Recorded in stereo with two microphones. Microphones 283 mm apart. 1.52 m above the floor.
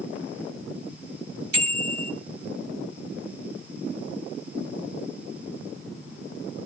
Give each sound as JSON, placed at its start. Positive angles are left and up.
{"t": 1.5, "sound": "a bicycle bell", "side_deg": -80, "distance_m": 3.5}